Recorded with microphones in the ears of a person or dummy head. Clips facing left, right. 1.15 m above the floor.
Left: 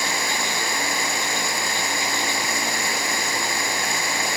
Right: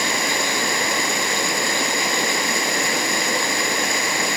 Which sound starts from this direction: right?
Running water, at 0.0 s.